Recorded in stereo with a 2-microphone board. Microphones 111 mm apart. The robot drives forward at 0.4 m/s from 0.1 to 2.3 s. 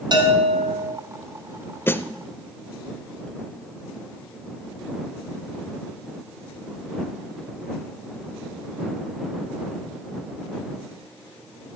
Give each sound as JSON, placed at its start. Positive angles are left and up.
{"t": 0.1, "sound": "a bell", "side_deg": -45, "distance_m": 2.0}
{"t": 1.9, "sound": "a snare drum", "side_deg": 20, "distance_m": 0.5}